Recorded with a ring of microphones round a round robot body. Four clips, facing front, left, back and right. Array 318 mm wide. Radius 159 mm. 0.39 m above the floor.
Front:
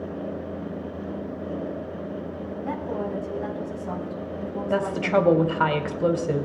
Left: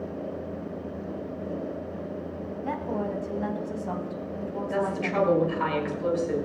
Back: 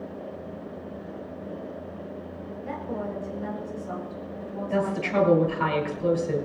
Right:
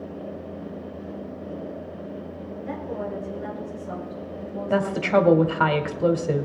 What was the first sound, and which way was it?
A woman speaking, 60° left.